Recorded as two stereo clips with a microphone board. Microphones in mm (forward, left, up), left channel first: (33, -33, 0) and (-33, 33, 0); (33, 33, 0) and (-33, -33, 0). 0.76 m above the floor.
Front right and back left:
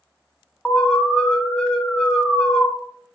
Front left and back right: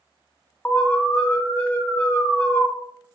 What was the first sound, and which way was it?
An alarm, 15° left.